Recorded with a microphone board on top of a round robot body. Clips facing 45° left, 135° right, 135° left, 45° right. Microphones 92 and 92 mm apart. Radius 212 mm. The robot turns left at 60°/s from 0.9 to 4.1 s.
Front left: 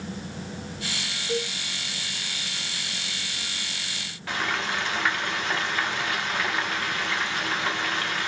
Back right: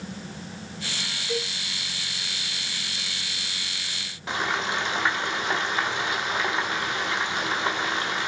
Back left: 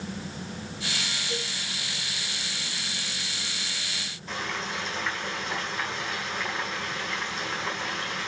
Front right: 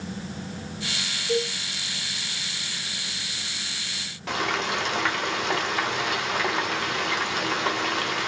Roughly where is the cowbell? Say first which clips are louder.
Front left 2 dB, front right 13 dB; ahead.